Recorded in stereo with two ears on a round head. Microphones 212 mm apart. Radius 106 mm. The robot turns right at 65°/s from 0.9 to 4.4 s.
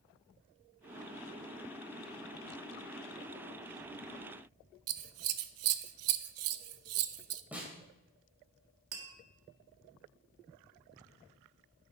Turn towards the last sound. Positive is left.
turn(degrees=-85)